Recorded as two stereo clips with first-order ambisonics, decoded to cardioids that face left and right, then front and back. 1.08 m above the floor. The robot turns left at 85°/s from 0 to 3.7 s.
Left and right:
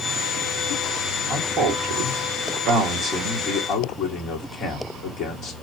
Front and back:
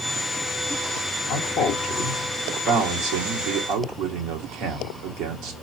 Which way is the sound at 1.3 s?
Straight ahead.